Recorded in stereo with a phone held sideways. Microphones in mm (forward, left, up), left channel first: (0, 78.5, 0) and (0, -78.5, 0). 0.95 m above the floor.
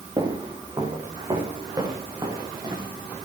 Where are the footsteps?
30° right (ahead or behind), 7 m; by 2.9 s 25° right (ahead or behind), 10 m.